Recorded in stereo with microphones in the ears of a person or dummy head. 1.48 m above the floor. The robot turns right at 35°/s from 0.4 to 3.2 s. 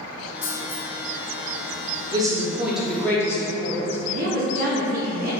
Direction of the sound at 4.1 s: 55° right (ahead or behind).